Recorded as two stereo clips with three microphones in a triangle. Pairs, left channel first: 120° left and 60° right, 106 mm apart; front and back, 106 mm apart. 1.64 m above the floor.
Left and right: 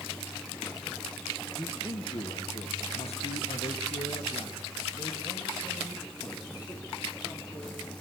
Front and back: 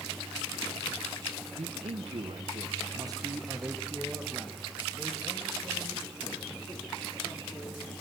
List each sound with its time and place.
1.6 s a man speaking: 175° left, 1.5 m; by 7.9 s 65° left, 4 m